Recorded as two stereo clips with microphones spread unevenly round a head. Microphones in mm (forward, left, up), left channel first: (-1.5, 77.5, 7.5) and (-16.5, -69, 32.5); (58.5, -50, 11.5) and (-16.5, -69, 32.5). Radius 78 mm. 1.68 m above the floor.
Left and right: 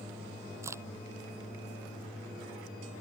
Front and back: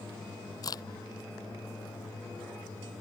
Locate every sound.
0.6 s a crack: 25° right